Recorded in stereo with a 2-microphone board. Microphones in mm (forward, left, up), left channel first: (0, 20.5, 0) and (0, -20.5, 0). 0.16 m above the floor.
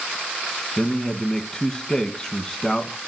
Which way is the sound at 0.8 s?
20° left (ahead or behind).